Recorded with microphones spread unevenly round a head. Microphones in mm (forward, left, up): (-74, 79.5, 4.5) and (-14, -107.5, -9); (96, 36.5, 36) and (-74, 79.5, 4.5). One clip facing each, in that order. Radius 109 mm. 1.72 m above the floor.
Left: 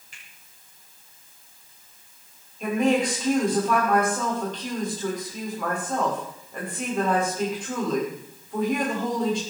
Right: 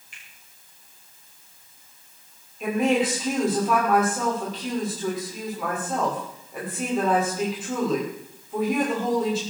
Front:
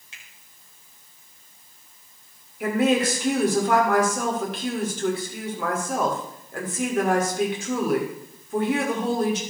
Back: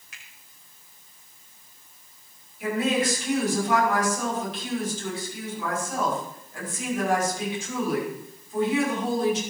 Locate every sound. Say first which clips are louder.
0.1 s a finger snap: even, even; 50° left, 7 m
2.6 s a woman speaking: even, front 4 dB; 15° left, 6.5 m